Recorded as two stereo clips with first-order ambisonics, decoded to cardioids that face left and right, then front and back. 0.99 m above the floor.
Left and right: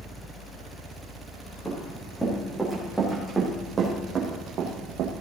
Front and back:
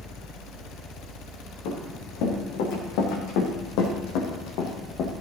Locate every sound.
1.6 s running footsteps: 5° left, 5.5 m; by 5.1 s 50° right, 2.5 m